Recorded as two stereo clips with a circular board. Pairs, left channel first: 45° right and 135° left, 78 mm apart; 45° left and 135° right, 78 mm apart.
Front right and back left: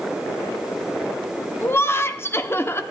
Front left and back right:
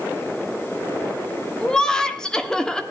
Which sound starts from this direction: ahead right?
Laughter, at 1.6 s.